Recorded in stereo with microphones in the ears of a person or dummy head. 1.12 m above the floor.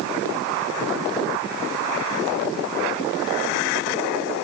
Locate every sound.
Only background noise.